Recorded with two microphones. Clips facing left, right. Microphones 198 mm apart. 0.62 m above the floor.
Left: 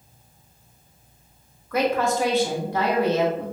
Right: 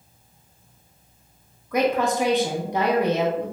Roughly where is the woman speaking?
Centre.